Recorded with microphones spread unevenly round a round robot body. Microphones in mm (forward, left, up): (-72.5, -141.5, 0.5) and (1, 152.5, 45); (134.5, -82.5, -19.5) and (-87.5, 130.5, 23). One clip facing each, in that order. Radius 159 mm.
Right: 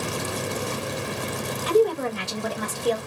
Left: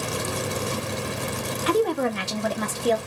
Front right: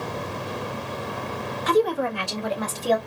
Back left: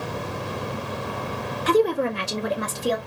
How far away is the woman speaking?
About 1.2 m.